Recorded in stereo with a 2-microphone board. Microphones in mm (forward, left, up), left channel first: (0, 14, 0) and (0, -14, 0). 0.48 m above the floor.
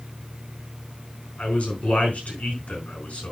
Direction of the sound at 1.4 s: 55° left (ahead or behind).